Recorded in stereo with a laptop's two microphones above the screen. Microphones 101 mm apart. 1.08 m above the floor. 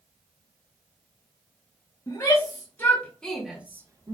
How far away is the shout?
About 1.6 m.